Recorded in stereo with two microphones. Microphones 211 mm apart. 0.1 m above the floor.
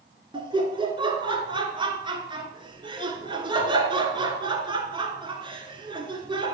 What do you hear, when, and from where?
0.3 s laughter: 25° right (ahead or behind), 1.1 m